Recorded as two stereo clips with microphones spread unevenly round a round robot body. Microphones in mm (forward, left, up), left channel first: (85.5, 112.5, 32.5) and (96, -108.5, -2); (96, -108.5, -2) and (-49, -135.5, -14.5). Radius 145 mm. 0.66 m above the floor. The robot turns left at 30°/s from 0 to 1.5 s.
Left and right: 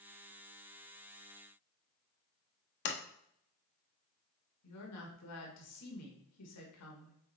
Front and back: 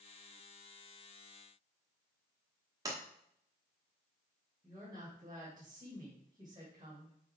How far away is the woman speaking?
About 2.5 m.